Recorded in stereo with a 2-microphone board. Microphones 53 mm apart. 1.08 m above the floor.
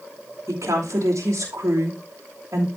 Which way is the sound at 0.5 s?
80° right.